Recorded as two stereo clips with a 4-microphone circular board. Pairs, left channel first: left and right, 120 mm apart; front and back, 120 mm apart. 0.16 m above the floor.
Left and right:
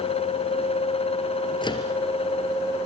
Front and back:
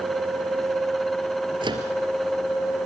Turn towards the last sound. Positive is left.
turn(degrees=135)